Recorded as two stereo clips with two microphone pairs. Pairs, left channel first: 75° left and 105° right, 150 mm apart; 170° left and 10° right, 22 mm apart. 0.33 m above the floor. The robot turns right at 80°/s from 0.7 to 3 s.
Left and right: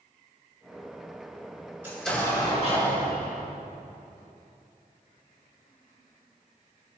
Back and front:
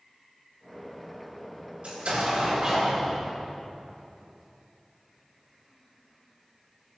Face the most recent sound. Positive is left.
turn(degrees=65)